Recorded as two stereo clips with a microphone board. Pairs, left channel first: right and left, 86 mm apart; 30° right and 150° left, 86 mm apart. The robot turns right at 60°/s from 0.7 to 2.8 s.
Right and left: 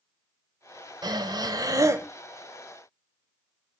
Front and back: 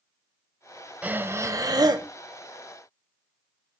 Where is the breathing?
80° left, 0.9 m; by 2.1 s 145° left, 0.9 m.